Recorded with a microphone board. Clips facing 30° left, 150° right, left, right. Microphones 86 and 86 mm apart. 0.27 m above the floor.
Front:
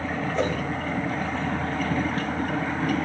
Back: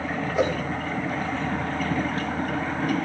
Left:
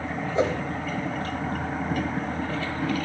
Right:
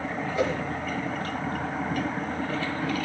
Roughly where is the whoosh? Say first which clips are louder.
Back 3 dB, left 3 dB; behind left.